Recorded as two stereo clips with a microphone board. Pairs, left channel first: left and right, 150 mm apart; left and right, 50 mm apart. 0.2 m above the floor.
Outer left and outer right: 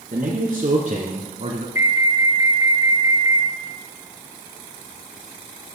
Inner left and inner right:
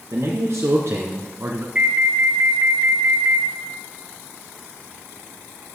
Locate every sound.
0.1 s a man speaking: 60° right (ahead or behind), 2.5 m; by 1.6 s 45° right (ahead or behind), 1.7 m
1.8 s an alarm: 20° right (ahead or behind), 1.5 m